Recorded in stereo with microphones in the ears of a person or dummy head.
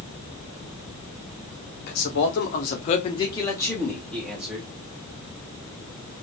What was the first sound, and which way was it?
A man speaking, 50° left (ahead or behind).